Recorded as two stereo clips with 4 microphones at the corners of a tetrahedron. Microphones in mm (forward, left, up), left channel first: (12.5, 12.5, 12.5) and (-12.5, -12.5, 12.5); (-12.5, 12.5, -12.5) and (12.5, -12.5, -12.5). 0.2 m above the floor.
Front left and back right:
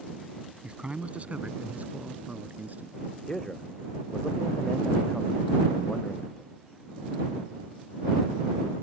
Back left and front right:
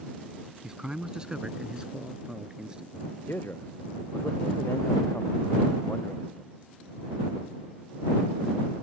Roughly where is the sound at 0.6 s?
Right.